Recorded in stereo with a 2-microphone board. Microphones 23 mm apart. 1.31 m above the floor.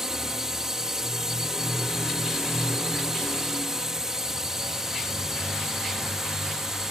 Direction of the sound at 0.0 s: 15° right (ahead or behind).